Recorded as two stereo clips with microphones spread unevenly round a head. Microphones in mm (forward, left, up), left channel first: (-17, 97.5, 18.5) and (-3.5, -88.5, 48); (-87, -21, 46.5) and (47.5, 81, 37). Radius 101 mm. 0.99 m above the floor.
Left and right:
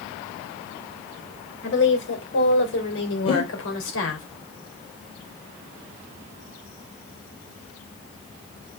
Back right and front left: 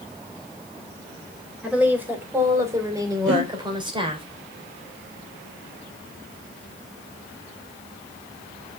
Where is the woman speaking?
120° left, 3.5 m; by 4.2 s 95° left, 3.5 m.